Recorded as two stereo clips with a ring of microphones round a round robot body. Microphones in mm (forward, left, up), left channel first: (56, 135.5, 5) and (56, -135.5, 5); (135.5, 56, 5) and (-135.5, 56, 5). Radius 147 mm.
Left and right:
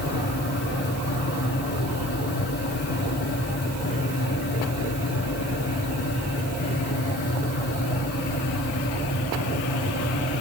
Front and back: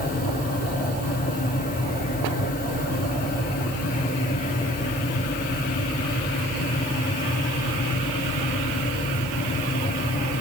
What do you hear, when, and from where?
Only background noise.